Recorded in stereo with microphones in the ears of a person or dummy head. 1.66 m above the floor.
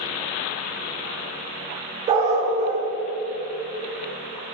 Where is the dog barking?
30° right (ahead or behind), 2 m.